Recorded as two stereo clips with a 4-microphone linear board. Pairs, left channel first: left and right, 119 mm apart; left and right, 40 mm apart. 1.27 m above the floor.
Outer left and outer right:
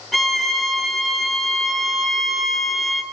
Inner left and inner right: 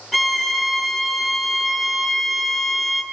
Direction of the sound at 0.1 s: Centre (ahead or behind).